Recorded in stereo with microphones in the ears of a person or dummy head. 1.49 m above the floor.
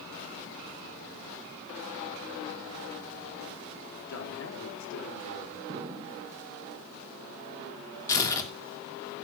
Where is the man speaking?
75° left (ahead or behind), 3.5 m; by 5.6 s 65° left (ahead or behind), 5.5 m.